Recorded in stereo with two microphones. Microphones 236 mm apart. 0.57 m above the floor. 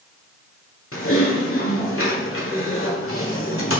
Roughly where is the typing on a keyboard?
Left.